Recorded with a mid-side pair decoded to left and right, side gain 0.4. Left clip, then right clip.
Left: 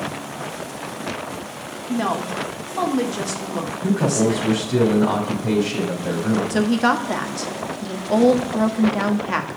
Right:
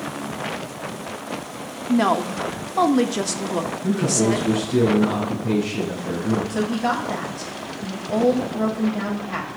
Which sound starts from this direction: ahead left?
A man speaking, at 3.8 s.